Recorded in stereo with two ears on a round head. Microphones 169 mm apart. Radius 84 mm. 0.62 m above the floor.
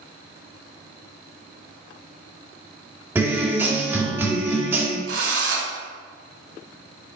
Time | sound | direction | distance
3.1 | a guitar | 10° right (ahead or behind) | 1.7 m
5.1 | a drill | 70° right (ahead or behind) | 3 m